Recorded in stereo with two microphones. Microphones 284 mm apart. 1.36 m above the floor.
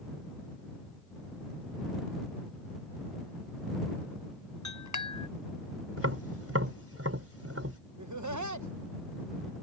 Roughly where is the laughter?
Right.